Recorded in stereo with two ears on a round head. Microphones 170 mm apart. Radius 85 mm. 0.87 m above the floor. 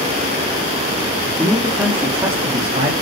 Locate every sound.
1.3 s a man speaking: 5° left (ahead or behind), 2.5 m; by 2.9 s 40° right (ahead or behind), 2.0 m